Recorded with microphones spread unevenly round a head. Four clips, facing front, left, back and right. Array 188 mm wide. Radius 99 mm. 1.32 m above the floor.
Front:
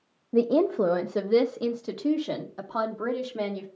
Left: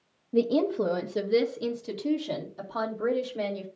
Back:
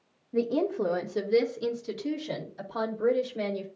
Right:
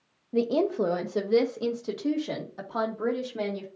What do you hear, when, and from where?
0.3 s a woman speaking: 10° right, 0.8 m; by 3.7 s 30° right, 2.5 m